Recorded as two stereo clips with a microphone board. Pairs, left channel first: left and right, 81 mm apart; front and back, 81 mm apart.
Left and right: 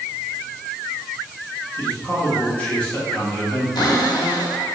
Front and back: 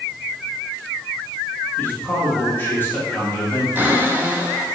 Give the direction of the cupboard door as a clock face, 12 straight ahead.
8 o'clock.